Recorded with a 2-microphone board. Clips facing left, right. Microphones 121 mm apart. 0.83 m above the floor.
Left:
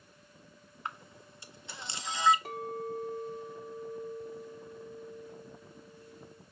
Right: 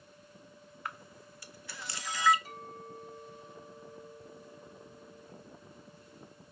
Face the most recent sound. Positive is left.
turn(degrees=65)  # may be behind; listen again after turning